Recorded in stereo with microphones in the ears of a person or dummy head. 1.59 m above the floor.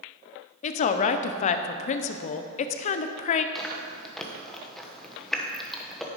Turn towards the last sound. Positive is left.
turn(degrees=5)  # may be behind; listen again after turning